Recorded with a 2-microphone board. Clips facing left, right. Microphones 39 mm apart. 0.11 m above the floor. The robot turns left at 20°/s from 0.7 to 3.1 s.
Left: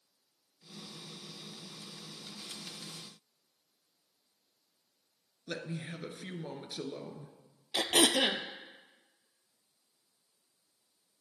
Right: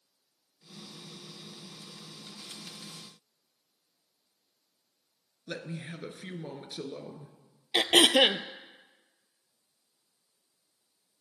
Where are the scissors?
I don't hear scissors.